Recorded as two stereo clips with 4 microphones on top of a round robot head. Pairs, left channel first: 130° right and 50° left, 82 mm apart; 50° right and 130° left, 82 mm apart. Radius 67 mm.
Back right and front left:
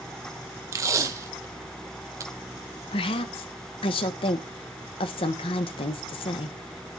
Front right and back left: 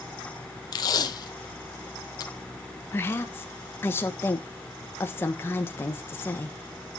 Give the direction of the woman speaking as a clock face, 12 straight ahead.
4 o'clock.